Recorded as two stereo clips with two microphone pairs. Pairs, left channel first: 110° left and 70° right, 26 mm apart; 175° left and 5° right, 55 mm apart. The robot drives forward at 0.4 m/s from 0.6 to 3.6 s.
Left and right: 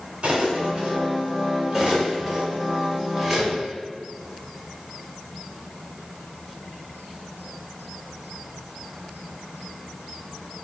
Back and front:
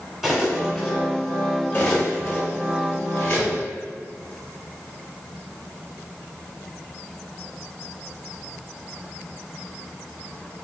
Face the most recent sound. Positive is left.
turn(degrees=-160)